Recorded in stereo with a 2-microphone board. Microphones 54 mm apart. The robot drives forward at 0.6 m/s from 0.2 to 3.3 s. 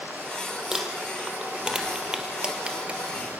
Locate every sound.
0.7 s crumpling: 10° right (ahead or behind), 2.5 m; by 3.0 s 20° right (ahead or behind), 1.4 m